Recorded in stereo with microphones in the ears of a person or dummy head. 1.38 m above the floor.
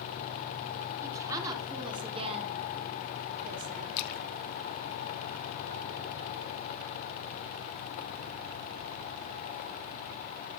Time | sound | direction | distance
1.0 | a woman speaking | 15° right (ahead or behind) | 2 m
4.0 | a splash | 55° left (ahead or behind) | 0.8 m